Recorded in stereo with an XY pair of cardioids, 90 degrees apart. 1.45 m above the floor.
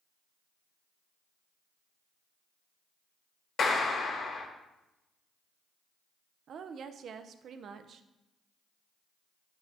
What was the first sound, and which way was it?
A clap, 65° left.